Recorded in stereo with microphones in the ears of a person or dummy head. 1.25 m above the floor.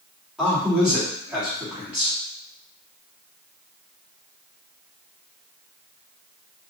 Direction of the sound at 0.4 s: Centre (ahead or behind).